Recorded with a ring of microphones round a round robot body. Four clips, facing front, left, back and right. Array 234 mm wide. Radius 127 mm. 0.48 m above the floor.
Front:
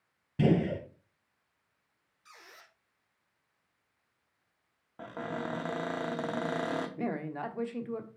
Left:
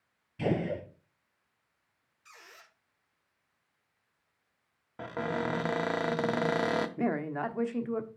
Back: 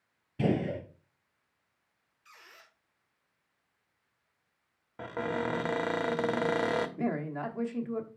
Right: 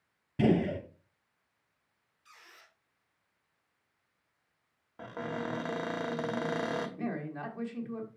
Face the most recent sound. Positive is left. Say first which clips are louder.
# left 6 dB, back 2 dB
turn(degrees=85)